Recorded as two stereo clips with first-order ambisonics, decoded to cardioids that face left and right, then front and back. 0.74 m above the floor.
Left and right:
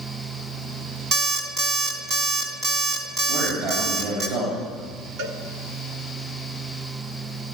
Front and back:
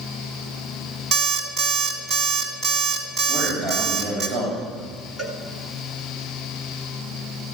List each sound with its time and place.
1.1 s an alarm clock: 125° right, 2.5 m
3.3 s a man speaking: 105° right, 4 m
5.2 s a cowbell: 95° right, 1.8 m